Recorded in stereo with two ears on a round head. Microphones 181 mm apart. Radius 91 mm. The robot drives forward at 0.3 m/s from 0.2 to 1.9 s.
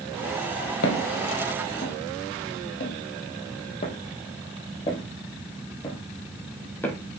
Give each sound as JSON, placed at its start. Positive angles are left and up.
{"t": 0.8, "sound": "footsteps", "side_deg": 60, "distance_m": 2.5}